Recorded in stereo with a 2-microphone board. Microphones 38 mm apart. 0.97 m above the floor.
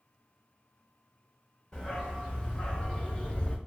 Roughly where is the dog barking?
Centre.